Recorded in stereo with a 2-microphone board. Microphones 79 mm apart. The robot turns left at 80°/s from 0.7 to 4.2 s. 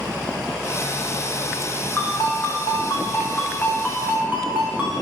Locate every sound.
2.0 s a ringtone: 155° left, 7.5 m; by 4.9 s 25° right, 7.5 m